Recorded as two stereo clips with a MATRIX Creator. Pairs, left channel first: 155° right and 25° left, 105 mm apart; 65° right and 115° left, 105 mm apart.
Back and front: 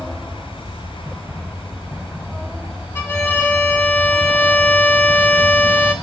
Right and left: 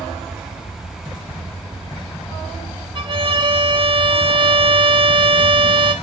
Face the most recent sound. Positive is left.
turn(degrees=140)